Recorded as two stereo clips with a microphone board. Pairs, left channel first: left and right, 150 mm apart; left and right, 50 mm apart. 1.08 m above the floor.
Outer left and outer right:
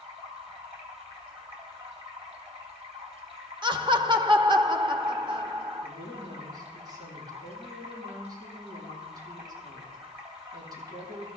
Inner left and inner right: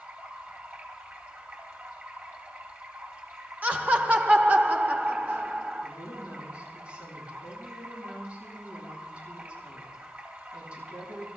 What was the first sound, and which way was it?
Running water, 45° right (ahead or behind).